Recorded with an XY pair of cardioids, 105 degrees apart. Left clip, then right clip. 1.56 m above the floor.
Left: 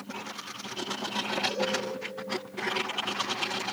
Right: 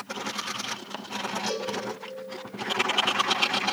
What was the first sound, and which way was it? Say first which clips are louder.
A cowbell: left 2 dB; 65° right.